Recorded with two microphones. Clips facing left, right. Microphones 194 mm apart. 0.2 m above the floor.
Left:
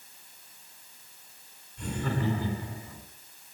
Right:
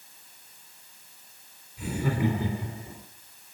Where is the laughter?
5° right (ahead or behind), 3 m; by 3.0 s 30° right (ahead or behind), 3 m.